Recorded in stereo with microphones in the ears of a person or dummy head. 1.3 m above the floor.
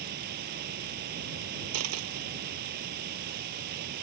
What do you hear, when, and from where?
0.0 s running water: 55° right (ahead or behind)
1.7 s a dropped coin: 80° right